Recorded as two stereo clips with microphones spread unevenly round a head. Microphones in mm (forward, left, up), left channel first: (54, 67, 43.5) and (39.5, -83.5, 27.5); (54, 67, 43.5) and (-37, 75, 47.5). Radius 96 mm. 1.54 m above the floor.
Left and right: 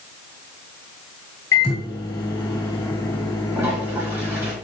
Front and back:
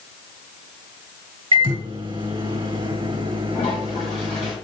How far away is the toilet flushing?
About 4 m.